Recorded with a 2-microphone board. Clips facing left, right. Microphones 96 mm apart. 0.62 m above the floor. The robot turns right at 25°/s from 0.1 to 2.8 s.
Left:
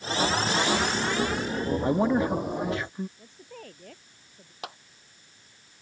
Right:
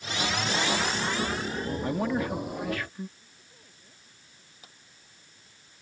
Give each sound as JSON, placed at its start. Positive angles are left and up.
{"t": 1.8, "sound": "a man speaking", "side_deg": 25}
{"t": 3.2, "sound": "a woman speaking", "side_deg": 85}
{"t": 4.6, "sound": "a clap", "side_deg": 80}